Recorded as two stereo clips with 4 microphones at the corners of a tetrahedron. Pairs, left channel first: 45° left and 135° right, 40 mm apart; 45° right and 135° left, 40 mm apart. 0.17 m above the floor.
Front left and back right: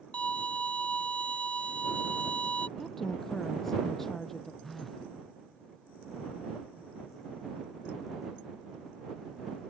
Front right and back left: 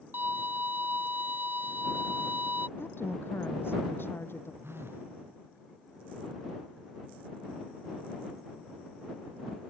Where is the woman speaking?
35° right.